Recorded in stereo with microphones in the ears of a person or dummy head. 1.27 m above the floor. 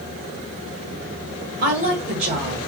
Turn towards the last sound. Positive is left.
turn(degrees=-45)  # may be behind; listen again after turning